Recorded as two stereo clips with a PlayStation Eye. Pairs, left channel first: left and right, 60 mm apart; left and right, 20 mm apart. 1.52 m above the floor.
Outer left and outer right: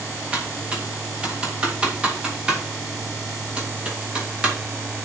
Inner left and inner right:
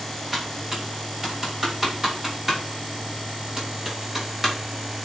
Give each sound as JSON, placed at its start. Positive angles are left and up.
{"t": 0.3, "sound": "typing on a keyboard", "side_deg": -20, "distance_m": 3.0}